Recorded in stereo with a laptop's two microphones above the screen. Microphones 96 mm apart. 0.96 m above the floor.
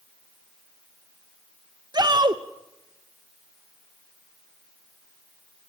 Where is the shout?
45° right (ahead or behind), 0.7 m.